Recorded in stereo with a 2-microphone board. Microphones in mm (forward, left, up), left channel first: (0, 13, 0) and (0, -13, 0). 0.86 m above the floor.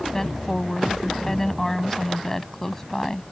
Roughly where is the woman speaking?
Centre.